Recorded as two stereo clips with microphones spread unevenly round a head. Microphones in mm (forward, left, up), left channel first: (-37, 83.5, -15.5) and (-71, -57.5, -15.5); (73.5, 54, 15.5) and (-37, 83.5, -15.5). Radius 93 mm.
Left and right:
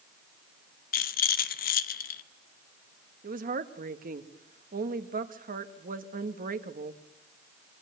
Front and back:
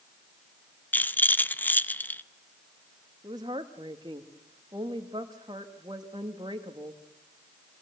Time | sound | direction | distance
0.9 | a rattle | 55° left | 0.8 m
3.2 | a woman speaking | 125° right | 1.5 m